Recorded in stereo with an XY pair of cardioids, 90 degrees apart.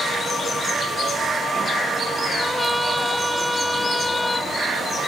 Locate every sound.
2.4 s a trumpet: 10° left